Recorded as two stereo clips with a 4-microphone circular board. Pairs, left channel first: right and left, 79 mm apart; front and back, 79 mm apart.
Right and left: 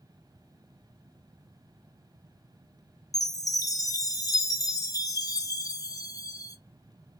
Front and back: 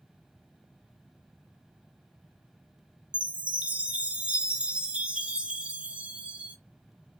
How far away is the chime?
About 0.5 m.